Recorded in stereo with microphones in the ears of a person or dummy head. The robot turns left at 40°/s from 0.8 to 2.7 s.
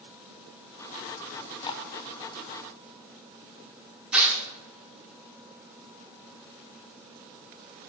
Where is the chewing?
10° left (ahead or behind), 0.7 m; by 1.8 s 30° left (ahead or behind), 0.7 m.